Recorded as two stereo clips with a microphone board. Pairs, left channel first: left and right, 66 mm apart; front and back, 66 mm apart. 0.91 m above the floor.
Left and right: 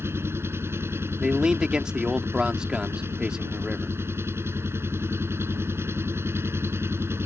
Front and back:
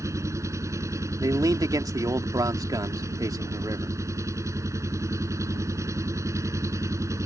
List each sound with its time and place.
0.0 s an engine running: 140° right
1.2 s a man speaking: 165° right